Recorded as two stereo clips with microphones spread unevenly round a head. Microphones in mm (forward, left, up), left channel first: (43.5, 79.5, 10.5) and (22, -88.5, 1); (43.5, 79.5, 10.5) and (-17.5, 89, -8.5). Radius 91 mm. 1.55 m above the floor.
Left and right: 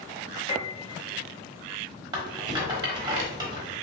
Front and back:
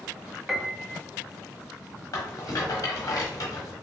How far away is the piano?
About 0.7 m.